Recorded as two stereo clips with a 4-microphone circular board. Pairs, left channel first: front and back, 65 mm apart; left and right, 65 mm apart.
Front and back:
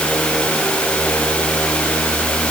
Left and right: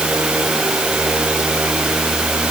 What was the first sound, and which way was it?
Only background noise.